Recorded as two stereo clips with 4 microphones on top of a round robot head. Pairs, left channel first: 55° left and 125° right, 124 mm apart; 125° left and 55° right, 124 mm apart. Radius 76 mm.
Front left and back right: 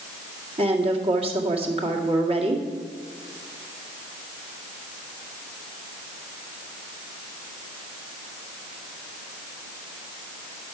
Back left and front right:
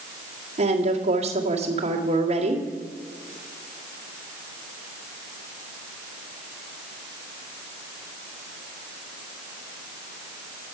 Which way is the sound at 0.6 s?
85° right.